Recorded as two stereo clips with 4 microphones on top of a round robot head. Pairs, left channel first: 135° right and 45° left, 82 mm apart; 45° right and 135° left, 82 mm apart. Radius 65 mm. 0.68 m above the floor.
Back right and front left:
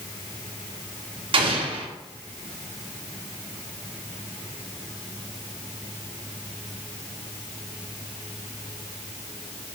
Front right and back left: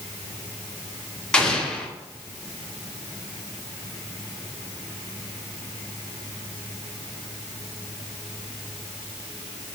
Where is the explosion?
35° left, 1.5 m.